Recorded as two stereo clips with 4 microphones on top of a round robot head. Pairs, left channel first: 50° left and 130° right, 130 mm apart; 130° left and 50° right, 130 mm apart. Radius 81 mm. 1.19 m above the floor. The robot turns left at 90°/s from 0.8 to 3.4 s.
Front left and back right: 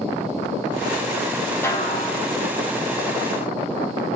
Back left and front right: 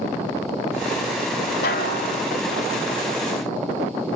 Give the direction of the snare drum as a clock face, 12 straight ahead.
8 o'clock.